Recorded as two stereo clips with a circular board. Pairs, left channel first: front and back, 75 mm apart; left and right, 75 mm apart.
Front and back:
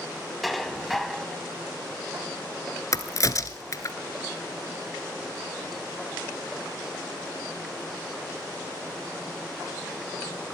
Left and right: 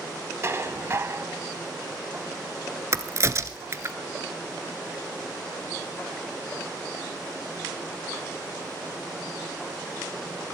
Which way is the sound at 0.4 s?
90° right.